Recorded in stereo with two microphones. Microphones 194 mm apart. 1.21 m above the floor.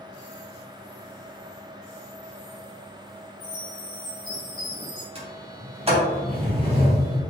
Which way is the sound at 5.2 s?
30° right (ahead or behind).